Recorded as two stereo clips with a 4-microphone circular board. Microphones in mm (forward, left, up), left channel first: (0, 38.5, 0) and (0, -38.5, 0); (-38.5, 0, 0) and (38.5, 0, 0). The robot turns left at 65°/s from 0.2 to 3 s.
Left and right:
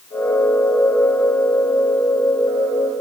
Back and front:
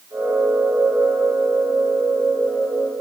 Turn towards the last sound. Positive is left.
No sound to turn to.